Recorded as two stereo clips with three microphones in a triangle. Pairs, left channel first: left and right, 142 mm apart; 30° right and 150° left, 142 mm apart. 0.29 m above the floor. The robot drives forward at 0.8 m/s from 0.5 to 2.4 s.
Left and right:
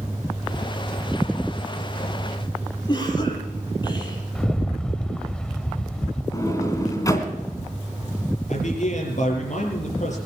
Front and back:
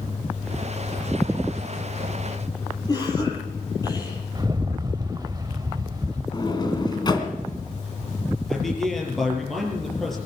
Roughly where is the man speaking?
Ahead left.